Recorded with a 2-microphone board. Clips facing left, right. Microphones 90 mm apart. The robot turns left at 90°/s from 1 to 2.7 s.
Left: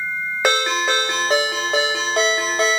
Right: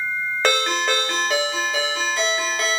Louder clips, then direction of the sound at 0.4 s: Left 2 dB; 170° left.